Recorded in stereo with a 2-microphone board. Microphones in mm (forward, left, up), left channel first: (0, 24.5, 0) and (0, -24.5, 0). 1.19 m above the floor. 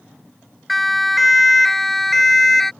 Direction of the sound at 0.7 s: Centre (ahead or behind).